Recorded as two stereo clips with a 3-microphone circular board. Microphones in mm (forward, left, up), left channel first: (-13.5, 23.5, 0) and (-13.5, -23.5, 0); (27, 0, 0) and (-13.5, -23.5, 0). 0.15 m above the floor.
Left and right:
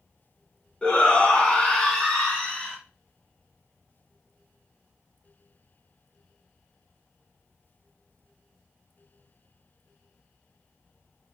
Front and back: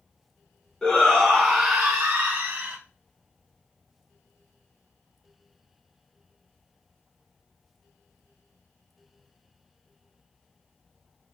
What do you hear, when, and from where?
0.8 s a shout: 70° left, 1.4 m; by 2.8 s 160° left, 1.7 m